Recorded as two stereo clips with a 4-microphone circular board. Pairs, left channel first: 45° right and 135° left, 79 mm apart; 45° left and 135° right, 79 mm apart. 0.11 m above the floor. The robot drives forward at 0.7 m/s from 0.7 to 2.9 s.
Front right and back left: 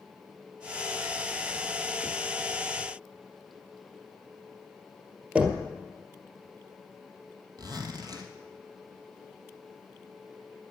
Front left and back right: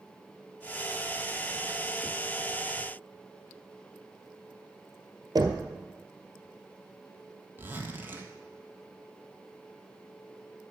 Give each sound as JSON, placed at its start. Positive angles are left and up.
{"t": 5.3, "sound": "knocking", "azimuth_deg": -155, "distance_m": 1.5}
{"t": 7.6, "sound": "a zipper", "azimuth_deg": 165, "distance_m": 1.5}